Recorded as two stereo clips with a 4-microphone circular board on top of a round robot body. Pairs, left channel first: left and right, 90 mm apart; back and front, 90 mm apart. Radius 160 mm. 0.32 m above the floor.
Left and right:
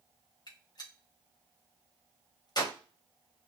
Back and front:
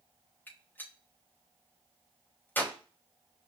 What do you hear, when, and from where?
0.5 s a gunshot: 115° left, 1.6 m